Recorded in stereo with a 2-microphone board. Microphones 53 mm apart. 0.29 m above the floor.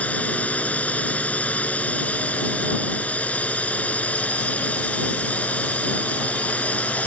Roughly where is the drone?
Left.